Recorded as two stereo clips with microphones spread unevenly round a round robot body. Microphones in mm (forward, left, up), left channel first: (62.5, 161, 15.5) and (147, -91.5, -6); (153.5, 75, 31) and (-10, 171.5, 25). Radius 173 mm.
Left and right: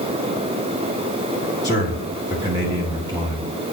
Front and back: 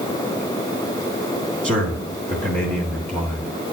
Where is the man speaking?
150° right, 1.5 m.